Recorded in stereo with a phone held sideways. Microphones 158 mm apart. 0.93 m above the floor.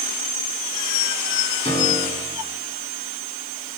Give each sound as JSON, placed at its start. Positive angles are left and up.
{"t": 1.6, "sound": "a piano", "side_deg": 45, "distance_m": 7.0}